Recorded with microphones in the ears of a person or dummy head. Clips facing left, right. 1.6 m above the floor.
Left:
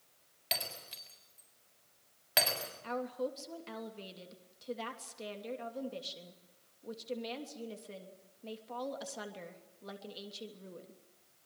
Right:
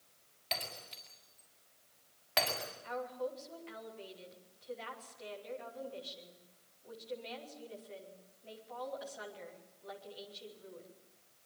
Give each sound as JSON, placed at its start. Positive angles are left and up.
{"t": 0.5, "sound": "breaking glass", "side_deg": 15, "distance_m": 6.5}
{"t": 2.8, "sound": "a woman speaking", "side_deg": 60, "distance_m": 3.0}